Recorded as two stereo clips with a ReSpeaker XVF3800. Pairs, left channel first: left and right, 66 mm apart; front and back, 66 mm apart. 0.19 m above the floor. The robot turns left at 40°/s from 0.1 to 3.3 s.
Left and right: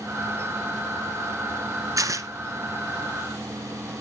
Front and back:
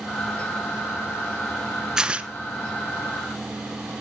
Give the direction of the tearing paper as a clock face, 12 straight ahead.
3 o'clock.